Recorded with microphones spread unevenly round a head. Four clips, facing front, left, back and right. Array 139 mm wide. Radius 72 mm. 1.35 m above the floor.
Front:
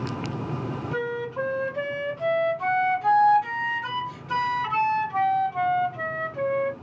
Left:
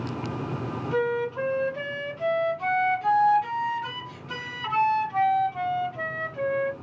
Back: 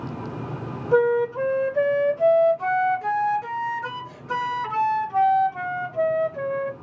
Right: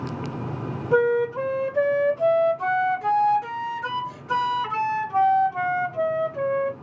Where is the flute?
140° right, 1.0 m.